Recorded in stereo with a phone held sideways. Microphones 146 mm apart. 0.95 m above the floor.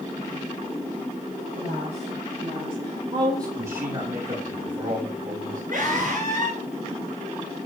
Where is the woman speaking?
50° right (ahead or behind), 6 m; by 3.5 s 25° right (ahead or behind), 4 m.